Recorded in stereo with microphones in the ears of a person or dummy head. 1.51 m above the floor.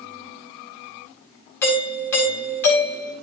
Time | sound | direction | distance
1.6 | a doorbell | 15° left (ahead or behind) | 4 m